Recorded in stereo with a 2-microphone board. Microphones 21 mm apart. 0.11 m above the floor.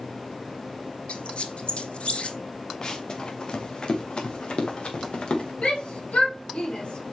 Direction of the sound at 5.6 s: 75° left (ahead or behind).